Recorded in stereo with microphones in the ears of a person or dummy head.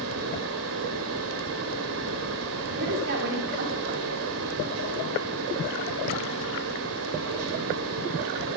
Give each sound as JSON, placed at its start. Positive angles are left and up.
{"t": 0.0, "sound": "a fan", "side_deg": -80, "distance_m": 3.0}
{"t": 2.8, "sound": "a woman speaking", "side_deg": -60, "distance_m": 4.5}